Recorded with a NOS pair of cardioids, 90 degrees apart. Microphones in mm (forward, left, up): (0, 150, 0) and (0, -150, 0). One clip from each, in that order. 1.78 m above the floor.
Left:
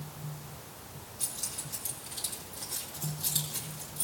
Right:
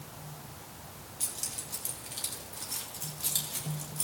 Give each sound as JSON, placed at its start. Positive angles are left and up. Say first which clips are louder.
{"t": 1.2, "sound": "keys jangling", "louder": "even", "azimuth_deg": -25, "distance_m": 3.0}